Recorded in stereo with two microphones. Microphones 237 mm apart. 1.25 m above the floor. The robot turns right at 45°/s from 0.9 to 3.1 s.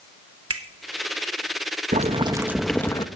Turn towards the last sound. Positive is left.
turn(degrees=20)